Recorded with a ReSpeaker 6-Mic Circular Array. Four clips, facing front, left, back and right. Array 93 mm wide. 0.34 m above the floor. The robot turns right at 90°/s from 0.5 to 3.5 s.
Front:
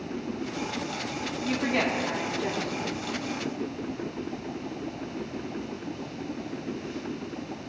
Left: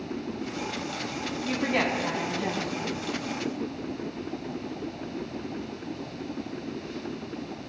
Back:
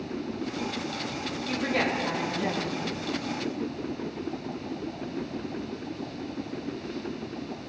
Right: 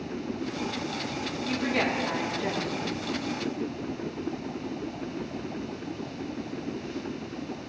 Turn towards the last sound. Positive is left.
turn(degrees=-130)